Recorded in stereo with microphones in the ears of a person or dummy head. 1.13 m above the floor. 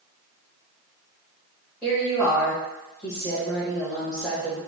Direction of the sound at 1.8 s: Centre (ahead or behind).